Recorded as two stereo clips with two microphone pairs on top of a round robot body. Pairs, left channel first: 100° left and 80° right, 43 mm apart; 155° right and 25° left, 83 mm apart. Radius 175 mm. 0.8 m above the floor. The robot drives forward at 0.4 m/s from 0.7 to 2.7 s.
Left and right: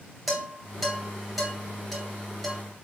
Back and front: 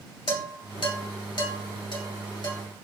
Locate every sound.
0.3 s dishes clattering: straight behind, 1.2 m